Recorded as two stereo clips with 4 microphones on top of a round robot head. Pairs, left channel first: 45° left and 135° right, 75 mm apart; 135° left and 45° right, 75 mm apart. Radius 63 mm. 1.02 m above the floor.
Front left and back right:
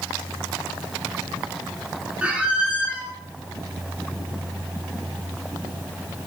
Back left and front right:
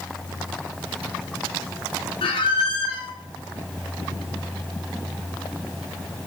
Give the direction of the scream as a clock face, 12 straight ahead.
I don't hear a scream.